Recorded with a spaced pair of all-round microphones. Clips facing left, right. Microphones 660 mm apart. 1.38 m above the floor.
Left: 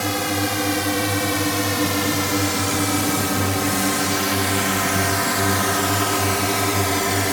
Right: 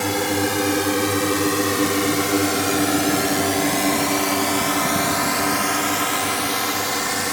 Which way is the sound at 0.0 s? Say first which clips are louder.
Right 2 dB; 10° left (ahead or behind).